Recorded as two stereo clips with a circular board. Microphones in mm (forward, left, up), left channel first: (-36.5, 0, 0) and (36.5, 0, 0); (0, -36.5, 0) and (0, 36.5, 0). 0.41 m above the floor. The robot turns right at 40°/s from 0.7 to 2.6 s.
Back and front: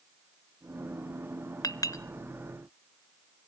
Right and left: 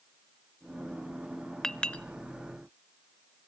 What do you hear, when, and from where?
1.6 s a clink: 170° right, 0.6 m; by 2.0 s 155° right, 0.6 m